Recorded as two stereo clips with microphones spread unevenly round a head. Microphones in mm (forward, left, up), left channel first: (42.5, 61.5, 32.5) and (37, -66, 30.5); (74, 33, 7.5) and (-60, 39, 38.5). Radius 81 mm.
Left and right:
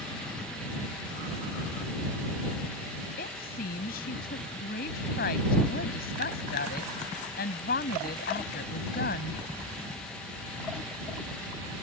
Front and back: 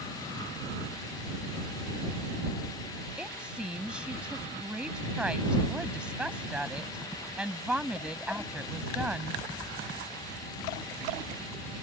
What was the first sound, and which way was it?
A woman speaking, 95° left.